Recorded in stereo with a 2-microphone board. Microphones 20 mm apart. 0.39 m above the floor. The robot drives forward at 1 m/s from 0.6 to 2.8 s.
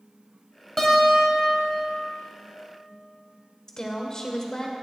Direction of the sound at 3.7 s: 35° left (ahead or behind).